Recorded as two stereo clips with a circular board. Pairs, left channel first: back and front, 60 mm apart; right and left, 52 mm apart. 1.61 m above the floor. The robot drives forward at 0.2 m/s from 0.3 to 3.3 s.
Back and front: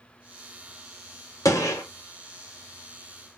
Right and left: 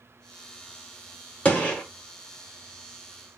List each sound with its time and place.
1.4 s a gunshot: 155° right, 1.0 m; by 1.8 s 160° right, 1.1 m